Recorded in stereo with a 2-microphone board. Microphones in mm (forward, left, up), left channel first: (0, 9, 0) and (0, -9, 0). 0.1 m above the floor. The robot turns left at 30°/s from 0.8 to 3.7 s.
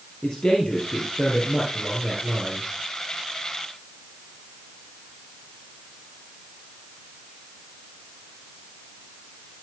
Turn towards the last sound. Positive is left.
turn(degrees=20)